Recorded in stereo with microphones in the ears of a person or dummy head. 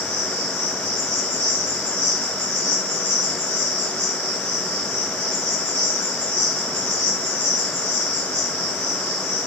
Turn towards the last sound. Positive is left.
turn(degrees=-75)  # may be behind; listen again after turning